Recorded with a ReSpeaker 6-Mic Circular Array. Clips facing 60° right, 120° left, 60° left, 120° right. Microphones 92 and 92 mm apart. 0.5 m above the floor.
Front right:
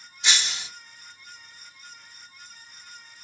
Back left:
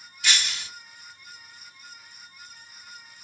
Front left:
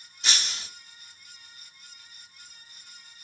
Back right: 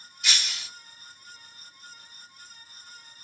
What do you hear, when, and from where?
0.2 s breaking glass: 5° left, 1.0 m